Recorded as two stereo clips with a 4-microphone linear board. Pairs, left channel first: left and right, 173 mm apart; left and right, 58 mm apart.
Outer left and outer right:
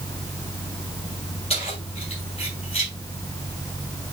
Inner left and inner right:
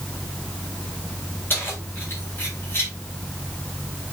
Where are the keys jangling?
35° left (ahead or behind), 8 m.